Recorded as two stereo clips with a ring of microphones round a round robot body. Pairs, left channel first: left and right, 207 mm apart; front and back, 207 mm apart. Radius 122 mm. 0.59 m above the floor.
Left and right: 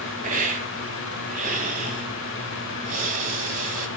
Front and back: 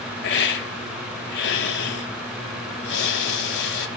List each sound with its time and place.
0.2 s a hiss: 30° right, 1.5 m